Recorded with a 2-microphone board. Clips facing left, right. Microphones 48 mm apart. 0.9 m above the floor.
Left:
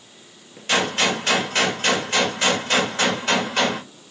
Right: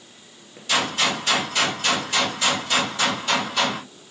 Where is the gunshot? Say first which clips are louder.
Left 2 dB; 45° left (ahead or behind), 1.7 m.